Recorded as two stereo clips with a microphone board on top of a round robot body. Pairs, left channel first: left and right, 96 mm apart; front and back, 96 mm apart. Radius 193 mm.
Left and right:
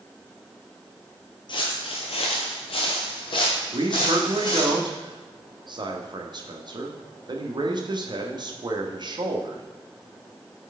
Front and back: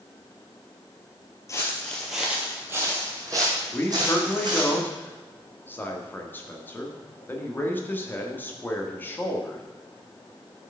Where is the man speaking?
65° right, 1.6 m.